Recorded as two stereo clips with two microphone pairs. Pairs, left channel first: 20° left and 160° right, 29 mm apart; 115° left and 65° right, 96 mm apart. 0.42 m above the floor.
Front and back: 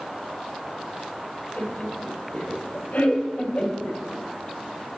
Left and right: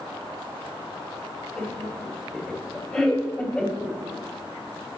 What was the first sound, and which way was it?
Laughter, 40° left.